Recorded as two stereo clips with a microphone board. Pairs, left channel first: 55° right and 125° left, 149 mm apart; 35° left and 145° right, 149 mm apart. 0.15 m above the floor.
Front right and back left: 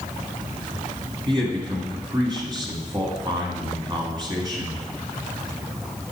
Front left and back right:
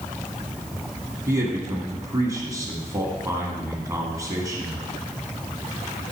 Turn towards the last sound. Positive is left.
turn(degrees=160)